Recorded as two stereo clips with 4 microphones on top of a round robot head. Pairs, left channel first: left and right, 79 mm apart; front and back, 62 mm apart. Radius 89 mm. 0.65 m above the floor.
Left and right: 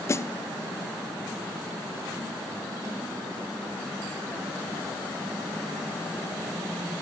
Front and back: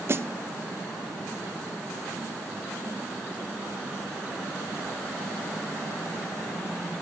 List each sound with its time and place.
0.1 s a snare drum: 140° left, 0.9 m